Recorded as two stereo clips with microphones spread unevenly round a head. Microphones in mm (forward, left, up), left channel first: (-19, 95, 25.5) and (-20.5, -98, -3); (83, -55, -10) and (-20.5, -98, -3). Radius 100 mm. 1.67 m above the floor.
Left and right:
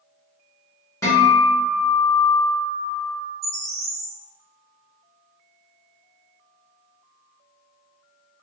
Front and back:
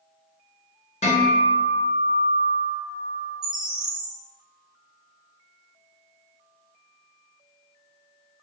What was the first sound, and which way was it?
A guitar, 20° left.